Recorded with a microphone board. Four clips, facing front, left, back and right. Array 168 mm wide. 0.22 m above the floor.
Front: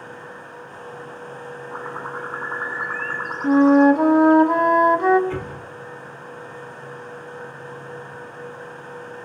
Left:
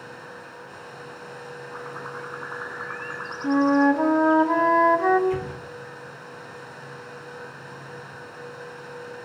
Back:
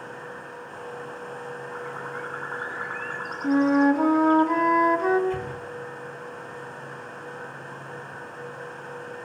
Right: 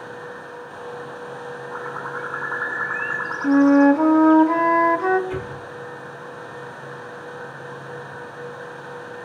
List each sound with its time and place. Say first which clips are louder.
1.7 s a bird: right 5 dB, front 6 dB; 35° right, 2.5 m
3.4 s a flute: right 5 dB, front 6 dB; 5° right, 1.7 m
5.3 s an explosion: left 1 dB, front 1 dB; 10° right, 7 m